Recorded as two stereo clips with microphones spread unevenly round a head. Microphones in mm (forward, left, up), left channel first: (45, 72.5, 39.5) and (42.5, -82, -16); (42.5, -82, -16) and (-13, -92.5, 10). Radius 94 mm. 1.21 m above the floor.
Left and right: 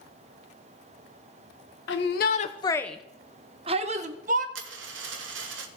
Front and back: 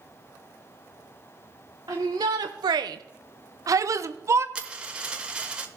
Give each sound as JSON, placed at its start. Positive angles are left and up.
{"t": 1.9, "sound": "a shout", "azimuth_deg": 120, "distance_m": 0.7}
{"t": 4.5, "sound": "a dropped coin", "azimuth_deg": -120, "distance_m": 1.3}